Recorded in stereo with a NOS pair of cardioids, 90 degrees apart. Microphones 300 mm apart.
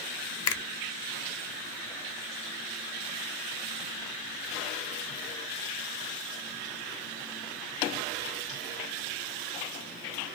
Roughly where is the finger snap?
Ahead left.